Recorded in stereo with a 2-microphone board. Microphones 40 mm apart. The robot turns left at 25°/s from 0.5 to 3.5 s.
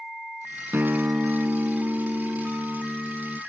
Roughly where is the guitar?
Right.